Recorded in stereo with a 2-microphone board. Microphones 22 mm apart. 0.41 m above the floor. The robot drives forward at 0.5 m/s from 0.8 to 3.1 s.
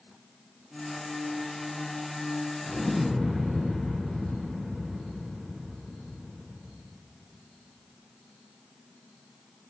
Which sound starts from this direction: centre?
An explosion, at 2.6 s.